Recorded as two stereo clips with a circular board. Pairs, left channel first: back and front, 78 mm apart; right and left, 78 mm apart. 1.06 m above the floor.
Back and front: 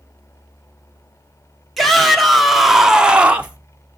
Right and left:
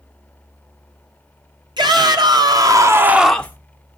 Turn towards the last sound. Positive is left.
turn(degrees=-55)